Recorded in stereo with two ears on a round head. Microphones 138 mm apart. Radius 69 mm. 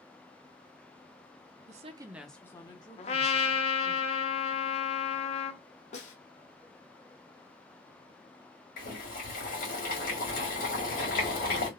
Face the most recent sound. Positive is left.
turn(degrees=60)  # may be behind; listen again after turning